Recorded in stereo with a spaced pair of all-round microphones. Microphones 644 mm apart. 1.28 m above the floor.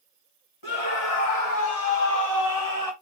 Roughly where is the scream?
Left.